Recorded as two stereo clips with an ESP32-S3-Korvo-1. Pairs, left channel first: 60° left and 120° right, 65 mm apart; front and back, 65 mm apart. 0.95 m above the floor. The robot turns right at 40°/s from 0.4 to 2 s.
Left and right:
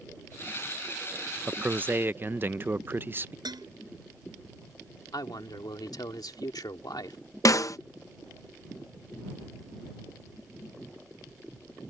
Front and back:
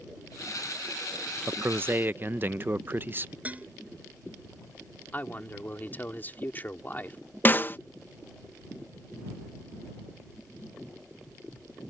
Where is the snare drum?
50° left.